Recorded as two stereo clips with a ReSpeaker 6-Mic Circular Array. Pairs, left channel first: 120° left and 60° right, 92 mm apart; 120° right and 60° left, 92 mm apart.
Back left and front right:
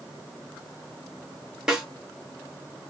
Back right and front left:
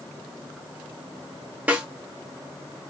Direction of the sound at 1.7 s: 15° left.